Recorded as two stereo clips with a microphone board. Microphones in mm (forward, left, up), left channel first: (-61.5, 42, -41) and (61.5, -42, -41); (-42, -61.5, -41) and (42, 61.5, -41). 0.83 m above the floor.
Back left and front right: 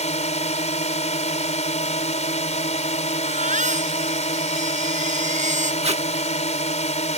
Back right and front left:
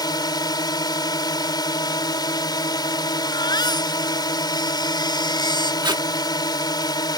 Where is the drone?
175° left.